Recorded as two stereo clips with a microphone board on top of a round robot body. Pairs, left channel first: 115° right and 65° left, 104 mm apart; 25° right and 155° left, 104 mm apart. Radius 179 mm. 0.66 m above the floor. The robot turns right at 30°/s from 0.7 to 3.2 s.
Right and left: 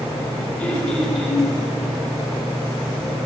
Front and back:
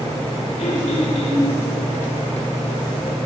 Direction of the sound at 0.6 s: 35° right.